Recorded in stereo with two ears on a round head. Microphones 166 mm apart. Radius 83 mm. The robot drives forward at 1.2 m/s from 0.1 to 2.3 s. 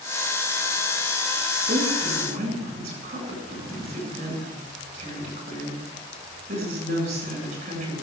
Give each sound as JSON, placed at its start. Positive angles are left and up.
{"t": 1.7, "sound": "a woman speaking", "side_deg": -35, "distance_m": 8.5}